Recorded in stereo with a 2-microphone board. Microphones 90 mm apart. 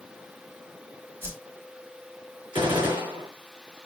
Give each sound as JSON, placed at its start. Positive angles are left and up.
{"t": 1.2, "sound": "a whoosh", "side_deg": -25, "distance_m": 1.9}
{"t": 2.5, "sound": "a gunshot", "side_deg": -75, "distance_m": 2.5}